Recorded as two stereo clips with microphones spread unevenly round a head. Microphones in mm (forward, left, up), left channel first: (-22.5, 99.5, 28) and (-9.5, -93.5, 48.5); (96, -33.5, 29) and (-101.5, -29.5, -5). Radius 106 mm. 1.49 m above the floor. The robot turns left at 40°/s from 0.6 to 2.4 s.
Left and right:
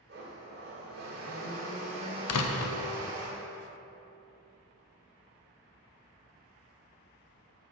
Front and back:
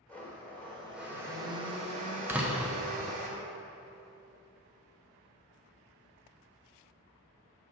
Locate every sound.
0.1 s a blender: 75° right, 1.6 m; by 3.3 s 145° right, 1.6 m
2.3 s a door slam: 95° left, 0.6 m; by 2.8 s 90° left, 0.6 m